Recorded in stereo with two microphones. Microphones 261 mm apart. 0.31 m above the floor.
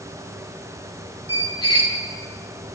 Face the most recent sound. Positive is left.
turn(degrees=70)  # may be behind; listen again after turning